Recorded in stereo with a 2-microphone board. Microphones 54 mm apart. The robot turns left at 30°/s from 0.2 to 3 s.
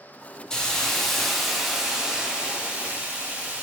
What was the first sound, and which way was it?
A hiss, 25° left.